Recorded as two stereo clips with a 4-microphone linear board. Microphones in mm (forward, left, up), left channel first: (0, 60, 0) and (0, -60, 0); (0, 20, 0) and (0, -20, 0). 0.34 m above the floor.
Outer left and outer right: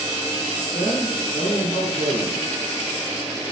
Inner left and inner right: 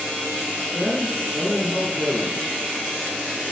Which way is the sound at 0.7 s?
70° left (ahead or behind).